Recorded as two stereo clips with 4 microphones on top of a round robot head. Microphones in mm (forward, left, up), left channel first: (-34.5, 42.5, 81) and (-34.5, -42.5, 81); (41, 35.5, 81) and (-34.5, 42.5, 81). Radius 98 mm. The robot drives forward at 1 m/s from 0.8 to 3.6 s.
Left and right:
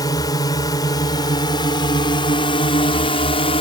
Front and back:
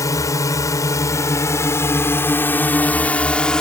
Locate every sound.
0.0 s a drone: 40° left; by 3.6 s 75° left